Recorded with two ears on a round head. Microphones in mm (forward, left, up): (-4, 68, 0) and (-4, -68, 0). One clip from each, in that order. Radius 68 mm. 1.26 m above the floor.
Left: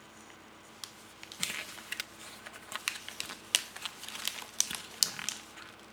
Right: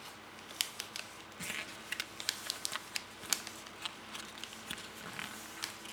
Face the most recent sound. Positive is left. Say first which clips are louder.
# left 4 dB
turn(degrees=10)  # may be behind; listen again after turning